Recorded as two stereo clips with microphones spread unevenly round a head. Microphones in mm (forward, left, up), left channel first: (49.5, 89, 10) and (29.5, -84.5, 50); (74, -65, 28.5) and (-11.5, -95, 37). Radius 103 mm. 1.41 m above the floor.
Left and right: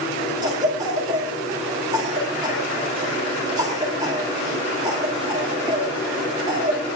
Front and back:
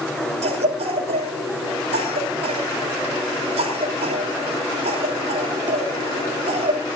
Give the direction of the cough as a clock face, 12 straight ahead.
6 o'clock.